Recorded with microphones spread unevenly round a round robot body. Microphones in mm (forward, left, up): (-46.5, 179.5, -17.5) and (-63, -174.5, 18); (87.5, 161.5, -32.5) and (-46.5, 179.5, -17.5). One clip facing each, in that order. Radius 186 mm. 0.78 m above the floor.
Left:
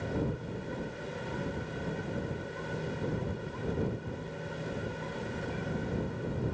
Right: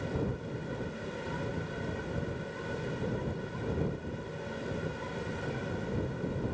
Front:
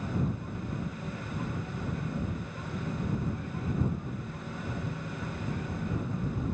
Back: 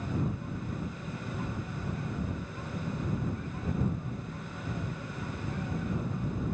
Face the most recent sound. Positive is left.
No sound to turn to.